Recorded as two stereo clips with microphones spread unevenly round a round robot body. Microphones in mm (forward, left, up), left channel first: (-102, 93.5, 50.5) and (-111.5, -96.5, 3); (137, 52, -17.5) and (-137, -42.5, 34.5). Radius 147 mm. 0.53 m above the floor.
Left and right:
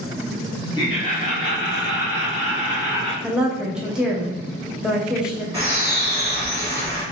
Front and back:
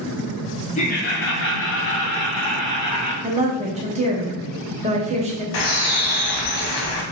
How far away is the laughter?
About 0.7 m.